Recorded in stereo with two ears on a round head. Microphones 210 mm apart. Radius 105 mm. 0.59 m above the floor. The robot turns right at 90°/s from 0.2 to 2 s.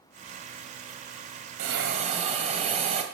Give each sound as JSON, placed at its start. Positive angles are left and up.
{"t": 1.6, "sound": "a hiss", "azimuth_deg": -65, "distance_m": 2.5}